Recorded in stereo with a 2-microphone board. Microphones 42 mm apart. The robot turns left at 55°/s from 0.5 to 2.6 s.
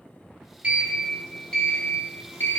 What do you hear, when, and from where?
0.6 s a sliding door: 145° right, 4.5 m; by 2.6 s 105° left, 4.5 m